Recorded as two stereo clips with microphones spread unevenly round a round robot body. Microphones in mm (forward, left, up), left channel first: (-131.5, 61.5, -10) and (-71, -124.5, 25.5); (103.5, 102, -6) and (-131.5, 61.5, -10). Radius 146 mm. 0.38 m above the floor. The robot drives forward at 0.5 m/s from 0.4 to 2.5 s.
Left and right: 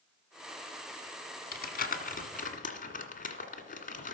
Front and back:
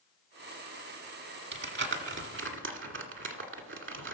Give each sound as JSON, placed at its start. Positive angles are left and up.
{"t": 1.5, "sound": "crumpling", "azimuth_deg": 150, "distance_m": 1.6}